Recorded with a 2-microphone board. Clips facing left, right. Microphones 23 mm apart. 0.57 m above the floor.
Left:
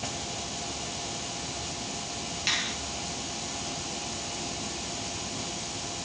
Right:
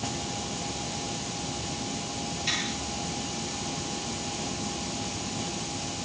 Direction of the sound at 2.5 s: 50° left (ahead or behind).